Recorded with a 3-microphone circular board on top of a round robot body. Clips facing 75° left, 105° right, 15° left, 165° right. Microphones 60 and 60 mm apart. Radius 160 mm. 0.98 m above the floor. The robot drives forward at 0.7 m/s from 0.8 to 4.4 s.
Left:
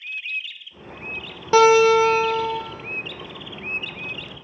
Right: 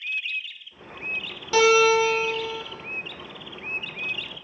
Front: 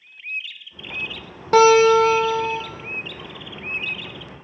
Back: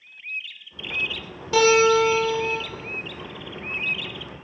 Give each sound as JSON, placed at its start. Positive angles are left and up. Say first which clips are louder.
{"t": 1.5, "sound": "a guitar", "louder": "left 4 dB, front 4 dB", "azimuth_deg": 30, "distance_m": 1.1}